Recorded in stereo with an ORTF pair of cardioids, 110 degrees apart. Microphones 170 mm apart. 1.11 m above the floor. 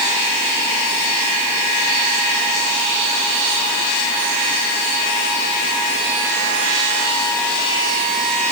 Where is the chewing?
No chewing in this recording.